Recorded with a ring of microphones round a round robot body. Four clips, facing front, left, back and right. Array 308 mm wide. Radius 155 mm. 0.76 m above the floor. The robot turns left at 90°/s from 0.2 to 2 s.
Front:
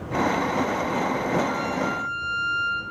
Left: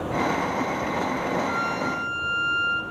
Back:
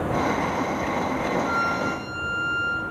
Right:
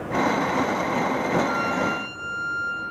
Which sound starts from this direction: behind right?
A violin, at 1.4 s.